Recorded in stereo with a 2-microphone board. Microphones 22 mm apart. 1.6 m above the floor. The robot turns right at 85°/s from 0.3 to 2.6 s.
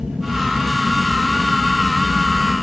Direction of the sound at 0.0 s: 65° right.